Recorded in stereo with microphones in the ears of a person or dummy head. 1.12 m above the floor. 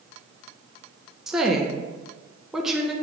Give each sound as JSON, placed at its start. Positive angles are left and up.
{"t": 1.3, "sound": "a woman speaking", "side_deg": 0, "distance_m": 0.7}